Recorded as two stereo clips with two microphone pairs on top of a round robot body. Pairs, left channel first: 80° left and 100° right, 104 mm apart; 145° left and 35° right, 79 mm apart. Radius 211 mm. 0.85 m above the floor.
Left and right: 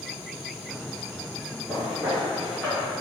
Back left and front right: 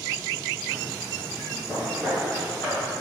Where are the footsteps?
15° right, 0.8 m; by 2.9 s straight behind, 1.2 m.